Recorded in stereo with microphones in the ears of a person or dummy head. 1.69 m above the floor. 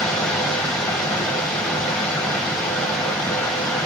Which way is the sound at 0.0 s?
5° left (ahead or behind).